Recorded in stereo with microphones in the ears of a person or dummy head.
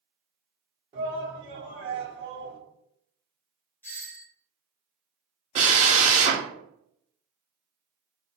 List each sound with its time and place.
0.9 s a shout: 40° right (ahead or behind), 1.1 m
3.8 s a doorbell: 10° left (ahead or behind), 0.8 m
5.5 s a drill: 40° right (ahead or behind), 1.6 m